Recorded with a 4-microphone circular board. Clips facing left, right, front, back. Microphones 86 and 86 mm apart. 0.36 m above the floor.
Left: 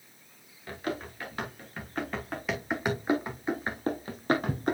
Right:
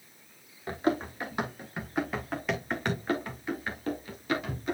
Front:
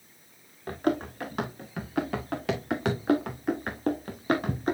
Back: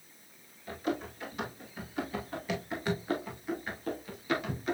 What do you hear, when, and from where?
0.7 s running footsteps: 30° right, 3 m; by 4.7 s 50° left, 2.5 m